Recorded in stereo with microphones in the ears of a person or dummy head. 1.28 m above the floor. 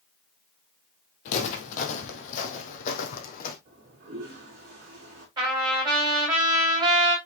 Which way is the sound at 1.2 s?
40° left (ahead or behind).